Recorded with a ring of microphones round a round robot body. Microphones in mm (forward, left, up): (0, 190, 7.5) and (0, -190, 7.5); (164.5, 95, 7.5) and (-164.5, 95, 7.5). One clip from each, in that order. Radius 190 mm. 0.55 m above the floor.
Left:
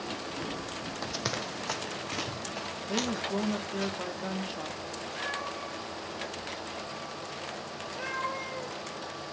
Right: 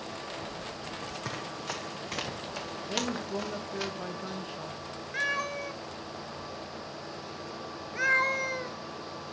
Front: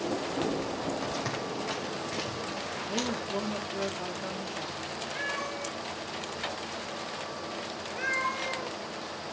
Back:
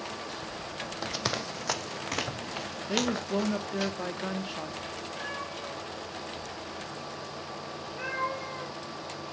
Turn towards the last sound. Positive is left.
turn(degrees=-65)